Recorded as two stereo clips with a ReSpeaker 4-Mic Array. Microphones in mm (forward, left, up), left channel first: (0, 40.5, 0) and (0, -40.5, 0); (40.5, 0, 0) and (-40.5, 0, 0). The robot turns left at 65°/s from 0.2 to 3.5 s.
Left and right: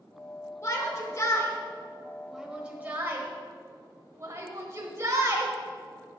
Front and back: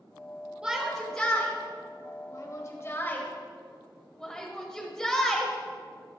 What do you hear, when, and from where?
0.6 s a shout: 110° left, 1.3 m; by 5.5 s 75° right, 1.3 m